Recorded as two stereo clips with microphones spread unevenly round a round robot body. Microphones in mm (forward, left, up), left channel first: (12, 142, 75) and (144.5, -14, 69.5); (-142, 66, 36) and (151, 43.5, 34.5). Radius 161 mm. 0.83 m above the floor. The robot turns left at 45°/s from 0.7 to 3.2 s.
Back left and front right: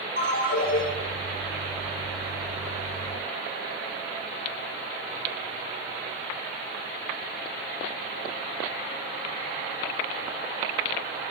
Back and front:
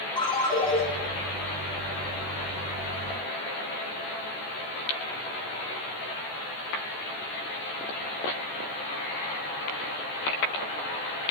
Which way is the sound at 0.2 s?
100° left.